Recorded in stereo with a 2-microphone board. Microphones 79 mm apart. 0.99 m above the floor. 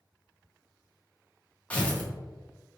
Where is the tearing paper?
15° left (ahead or behind), 0.6 m.